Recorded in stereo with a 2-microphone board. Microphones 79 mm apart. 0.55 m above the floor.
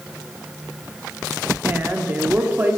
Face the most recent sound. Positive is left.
turn(degrees=-25)  # may be behind; listen again after turning